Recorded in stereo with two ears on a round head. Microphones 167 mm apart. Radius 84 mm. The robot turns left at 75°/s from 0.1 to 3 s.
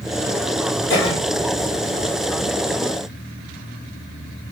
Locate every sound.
0.9 s a cough: 20° left (ahead or behind), 1.1 m; by 1.2 s 30° left (ahead or behind), 1.1 m